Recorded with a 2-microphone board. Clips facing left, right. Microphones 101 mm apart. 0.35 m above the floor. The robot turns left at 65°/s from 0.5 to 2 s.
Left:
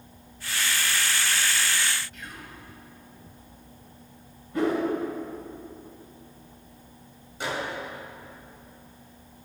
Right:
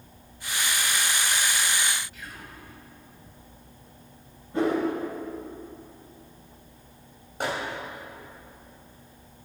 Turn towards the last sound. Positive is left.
turn(degrees=-50)  # may be behind; listen again after turning